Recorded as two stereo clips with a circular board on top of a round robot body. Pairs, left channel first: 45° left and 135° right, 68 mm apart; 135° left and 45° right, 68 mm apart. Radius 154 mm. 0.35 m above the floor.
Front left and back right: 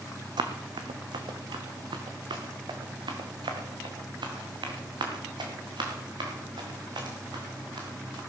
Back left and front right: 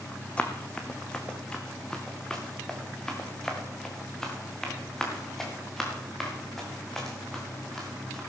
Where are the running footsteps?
150° right, 1.0 m; by 8.2 s 140° right, 5 m.